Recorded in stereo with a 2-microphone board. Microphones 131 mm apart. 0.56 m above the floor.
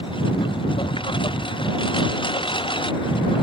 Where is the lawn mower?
40° left (ahead or behind).